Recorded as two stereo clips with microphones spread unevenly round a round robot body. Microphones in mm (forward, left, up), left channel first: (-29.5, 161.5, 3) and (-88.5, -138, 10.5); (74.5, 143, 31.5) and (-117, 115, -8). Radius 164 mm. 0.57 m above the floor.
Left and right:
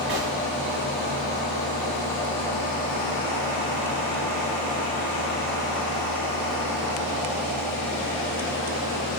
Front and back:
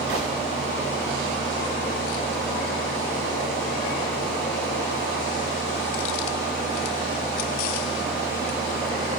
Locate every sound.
0.1 s a gunshot: 150° right, 4 m